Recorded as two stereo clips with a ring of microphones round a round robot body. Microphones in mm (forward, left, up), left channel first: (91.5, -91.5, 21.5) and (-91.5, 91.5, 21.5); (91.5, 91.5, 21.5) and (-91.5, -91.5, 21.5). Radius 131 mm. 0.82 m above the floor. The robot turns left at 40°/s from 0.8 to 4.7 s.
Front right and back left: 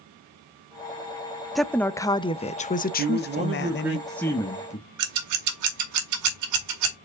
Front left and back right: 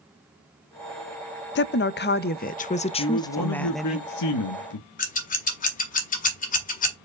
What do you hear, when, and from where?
1.6 s a woman speaking: 45° left, 0.5 m; by 4.0 s 50° right, 0.5 m
3.0 s a man speaking: 85° left, 1.0 m; by 4.9 s 20° left, 1.0 m
5.0 s scissors: 110° left, 2.0 m